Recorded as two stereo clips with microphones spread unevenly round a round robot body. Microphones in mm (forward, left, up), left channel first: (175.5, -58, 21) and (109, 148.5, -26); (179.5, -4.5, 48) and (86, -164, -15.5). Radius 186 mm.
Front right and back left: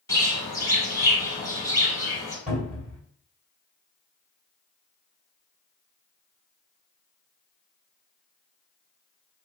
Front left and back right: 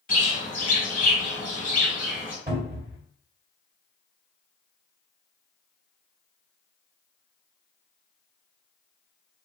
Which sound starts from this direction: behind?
A cupboard door, at 2.5 s.